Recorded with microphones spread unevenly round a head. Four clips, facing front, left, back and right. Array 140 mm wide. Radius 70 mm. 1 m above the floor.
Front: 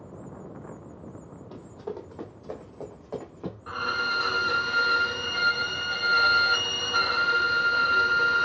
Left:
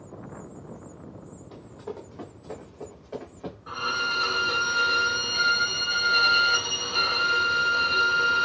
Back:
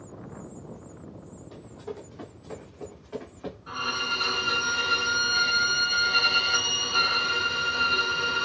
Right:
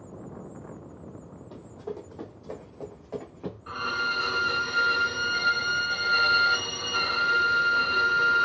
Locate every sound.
1.5 s running footsteps: 40° left, 1.7 m; by 3.6 s straight ahead, 3 m
3.7 s a violin: 10° left, 3 m